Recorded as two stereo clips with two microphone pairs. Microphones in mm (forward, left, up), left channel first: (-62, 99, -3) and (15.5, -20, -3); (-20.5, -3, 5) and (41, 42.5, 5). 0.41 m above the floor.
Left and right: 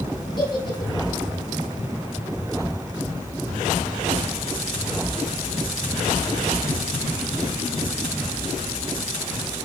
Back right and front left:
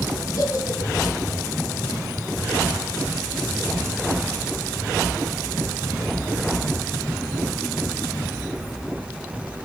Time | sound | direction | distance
0.4 | a giggle | straight behind | 4 m